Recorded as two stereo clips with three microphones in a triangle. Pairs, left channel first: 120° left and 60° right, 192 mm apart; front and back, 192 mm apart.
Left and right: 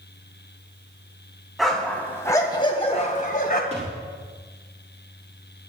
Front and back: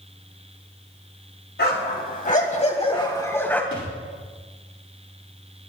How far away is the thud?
About 7 m.